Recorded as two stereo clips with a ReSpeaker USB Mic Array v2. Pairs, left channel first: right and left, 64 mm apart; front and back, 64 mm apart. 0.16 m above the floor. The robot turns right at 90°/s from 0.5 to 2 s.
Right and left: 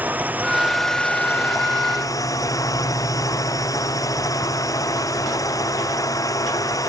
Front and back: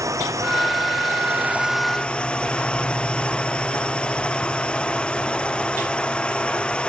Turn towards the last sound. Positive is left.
turn(degrees=-75)